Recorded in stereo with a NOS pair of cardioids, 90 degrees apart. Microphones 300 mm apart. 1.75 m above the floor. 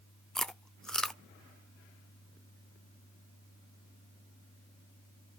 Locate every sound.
0.3 s chewing: straight ahead, 0.6 m